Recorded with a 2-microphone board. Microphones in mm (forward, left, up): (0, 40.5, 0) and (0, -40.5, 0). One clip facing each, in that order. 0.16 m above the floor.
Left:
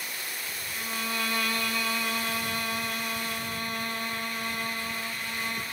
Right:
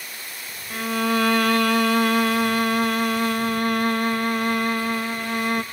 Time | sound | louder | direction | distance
0.7 | a violin | right 12 dB | 65° right (ahead or behind) | 0.5 m